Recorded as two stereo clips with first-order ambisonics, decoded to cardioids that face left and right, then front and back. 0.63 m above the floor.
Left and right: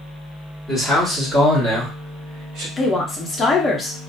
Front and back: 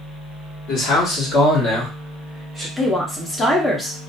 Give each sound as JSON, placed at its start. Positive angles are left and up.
{"t": 0.7, "sound": "a man speaking", "azimuth_deg": -15, "distance_m": 1.3}
{"t": 2.8, "sound": "a woman speaking", "azimuth_deg": 65, "distance_m": 0.5}